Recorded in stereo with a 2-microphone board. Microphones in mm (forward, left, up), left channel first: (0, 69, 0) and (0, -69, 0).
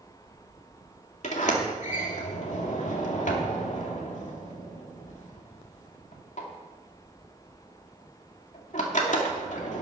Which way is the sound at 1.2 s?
60° left (ahead or behind).